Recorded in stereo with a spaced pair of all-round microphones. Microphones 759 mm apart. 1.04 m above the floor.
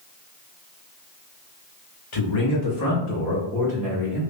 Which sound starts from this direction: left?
A man speaking, at 2.1 s.